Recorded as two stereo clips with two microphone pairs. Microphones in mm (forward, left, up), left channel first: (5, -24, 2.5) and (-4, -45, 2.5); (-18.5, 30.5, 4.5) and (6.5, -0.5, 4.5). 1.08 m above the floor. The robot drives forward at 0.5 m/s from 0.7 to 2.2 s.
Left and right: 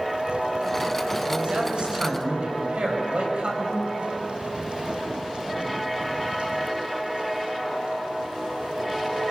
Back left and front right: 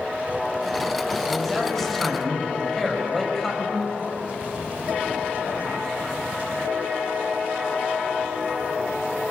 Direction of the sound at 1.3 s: 145° right.